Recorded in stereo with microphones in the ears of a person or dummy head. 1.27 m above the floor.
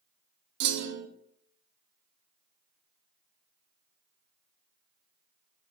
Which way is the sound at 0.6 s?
60° right (ahead or behind).